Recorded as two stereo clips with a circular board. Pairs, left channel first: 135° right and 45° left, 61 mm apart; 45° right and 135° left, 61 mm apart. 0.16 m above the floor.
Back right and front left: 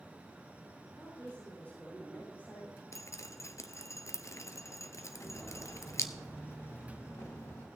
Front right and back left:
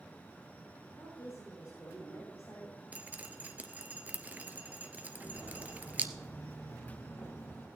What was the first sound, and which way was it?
A woman speaking, 90° right.